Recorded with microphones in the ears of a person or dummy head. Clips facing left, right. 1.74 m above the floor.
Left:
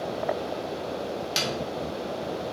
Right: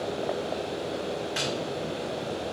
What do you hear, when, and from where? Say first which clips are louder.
1.4 s a snare drum: even; 60° left (ahead or behind), 1.9 m